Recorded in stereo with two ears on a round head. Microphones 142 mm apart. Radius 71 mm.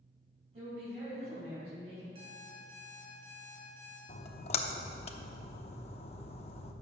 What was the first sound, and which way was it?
A woman speaking, 40° right (ahead or behind).